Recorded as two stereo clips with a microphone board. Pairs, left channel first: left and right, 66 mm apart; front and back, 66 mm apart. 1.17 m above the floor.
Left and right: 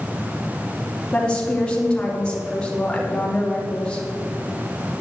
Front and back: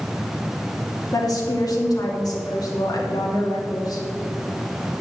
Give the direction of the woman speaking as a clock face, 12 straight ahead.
12 o'clock.